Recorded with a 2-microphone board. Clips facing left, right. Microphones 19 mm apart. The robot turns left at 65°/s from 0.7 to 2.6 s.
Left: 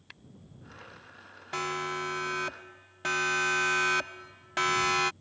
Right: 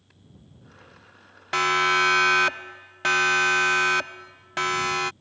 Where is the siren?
50° right (ahead or behind); by 5.1 s 5° left (ahead or behind).